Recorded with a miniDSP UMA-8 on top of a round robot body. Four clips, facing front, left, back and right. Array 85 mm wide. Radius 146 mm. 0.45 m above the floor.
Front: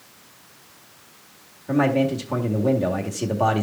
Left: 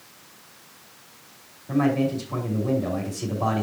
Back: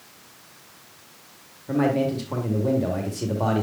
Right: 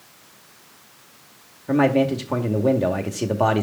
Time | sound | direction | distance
1.7 | a man speaking | 75° right | 2 m